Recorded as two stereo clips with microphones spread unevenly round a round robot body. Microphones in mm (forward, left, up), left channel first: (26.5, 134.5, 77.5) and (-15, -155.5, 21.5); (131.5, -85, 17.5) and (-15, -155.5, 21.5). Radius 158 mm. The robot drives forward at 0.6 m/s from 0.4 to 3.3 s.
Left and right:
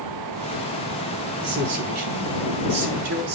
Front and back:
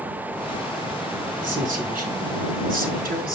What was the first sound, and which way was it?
A man speaking, 120° right.